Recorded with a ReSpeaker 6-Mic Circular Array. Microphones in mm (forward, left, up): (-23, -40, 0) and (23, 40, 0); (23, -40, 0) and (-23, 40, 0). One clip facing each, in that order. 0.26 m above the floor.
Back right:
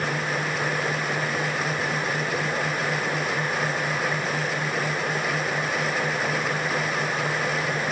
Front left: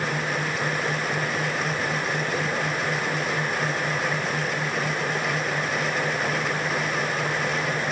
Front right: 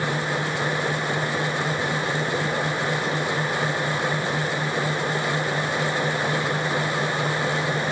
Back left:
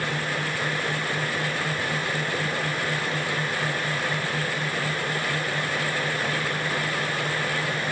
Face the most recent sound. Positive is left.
No sound to turn to.